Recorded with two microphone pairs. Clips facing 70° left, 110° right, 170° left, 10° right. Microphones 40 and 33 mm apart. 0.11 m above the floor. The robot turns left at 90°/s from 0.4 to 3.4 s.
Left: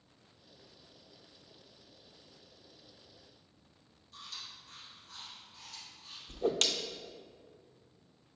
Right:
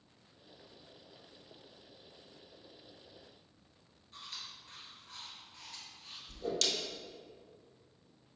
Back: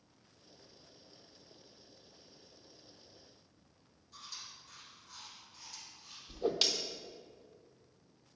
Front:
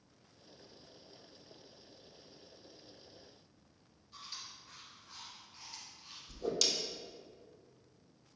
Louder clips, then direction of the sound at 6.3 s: Left 5 dB, back 3 dB; 115° left.